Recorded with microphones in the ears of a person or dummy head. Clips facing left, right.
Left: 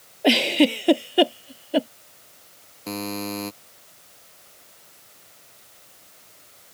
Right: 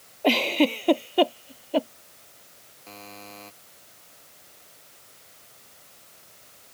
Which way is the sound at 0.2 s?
15° left (ahead or behind).